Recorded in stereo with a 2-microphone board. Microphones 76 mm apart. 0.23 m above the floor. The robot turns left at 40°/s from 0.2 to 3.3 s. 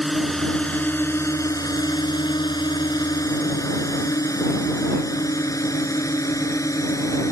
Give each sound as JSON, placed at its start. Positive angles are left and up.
{"t": 0.0, "sound": "a drone", "side_deg": 0}